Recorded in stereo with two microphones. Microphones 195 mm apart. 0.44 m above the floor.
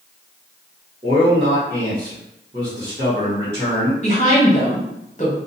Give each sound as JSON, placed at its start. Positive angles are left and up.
{"t": 1.0, "sound": "a man speaking", "side_deg": -30, "distance_m": 1.2}
{"t": 4.0, "sound": "a woman speaking", "side_deg": 40, "distance_m": 1.0}